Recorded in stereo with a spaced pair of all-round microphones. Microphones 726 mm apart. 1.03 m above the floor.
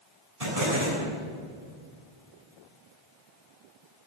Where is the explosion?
55° right (ahead or behind), 8 m.